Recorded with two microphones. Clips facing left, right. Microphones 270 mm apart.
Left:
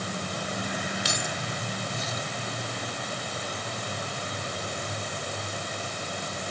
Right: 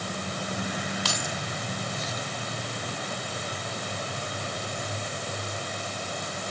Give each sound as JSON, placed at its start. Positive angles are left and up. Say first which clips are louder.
{"t": 1.1, "sound": "keys jangling", "louder": "even", "side_deg": 20}